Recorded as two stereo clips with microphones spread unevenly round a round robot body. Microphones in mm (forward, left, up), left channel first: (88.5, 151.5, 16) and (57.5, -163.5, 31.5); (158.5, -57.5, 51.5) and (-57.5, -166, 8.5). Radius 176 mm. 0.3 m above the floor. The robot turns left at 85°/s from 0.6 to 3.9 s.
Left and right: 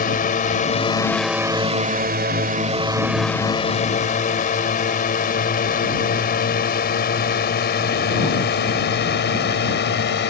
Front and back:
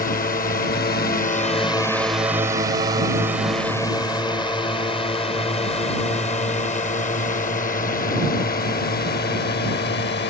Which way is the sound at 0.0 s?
60° left.